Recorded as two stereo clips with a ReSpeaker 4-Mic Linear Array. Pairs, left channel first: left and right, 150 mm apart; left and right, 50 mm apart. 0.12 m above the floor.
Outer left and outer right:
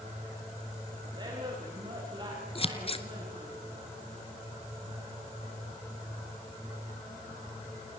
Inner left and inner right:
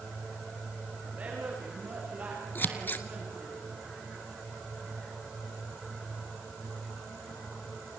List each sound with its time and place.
1.1 s a woman speaking: 30° right (ahead or behind), 10 m
2.5 s scissors: 40° left (ahead or behind), 1.5 m